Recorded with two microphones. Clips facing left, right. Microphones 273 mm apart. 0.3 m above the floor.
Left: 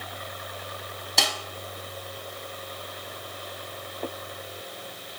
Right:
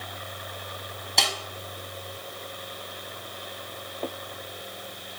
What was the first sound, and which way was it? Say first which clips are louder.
A snare drum: left 1 dB; centre (ahead or behind).